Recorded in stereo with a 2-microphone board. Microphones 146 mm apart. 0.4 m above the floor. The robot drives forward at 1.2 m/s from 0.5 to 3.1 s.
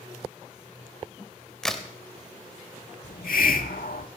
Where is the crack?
5° left (ahead or behind), 0.8 m.